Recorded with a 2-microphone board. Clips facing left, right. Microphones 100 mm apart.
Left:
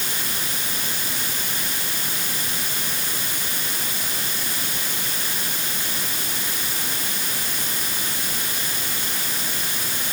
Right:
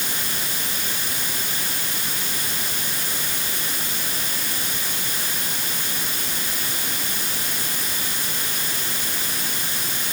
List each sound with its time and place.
Only background noise.